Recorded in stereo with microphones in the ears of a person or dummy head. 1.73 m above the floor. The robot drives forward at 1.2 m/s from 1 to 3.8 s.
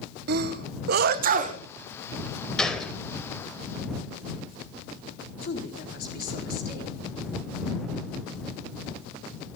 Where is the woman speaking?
50° left (ahead or behind), 4.5 m.